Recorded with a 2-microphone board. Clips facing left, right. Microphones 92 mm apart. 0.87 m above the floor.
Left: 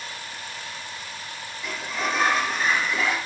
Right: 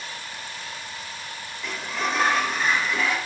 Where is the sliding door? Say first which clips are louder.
Even; centre (ahead or behind), 1.4 m.